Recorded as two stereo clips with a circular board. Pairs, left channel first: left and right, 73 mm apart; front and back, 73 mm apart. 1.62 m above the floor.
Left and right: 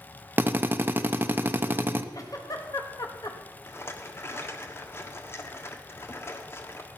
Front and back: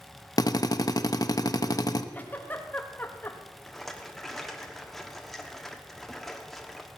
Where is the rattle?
85° left, 1.3 m.